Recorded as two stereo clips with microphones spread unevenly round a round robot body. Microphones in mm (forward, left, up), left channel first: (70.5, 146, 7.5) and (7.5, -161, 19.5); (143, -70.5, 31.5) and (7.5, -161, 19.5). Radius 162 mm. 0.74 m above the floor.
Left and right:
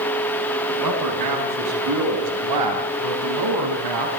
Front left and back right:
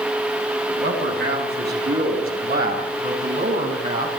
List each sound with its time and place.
0.7 s a man speaking: 140° right, 5 m; by 4.1 s 120° right, 5 m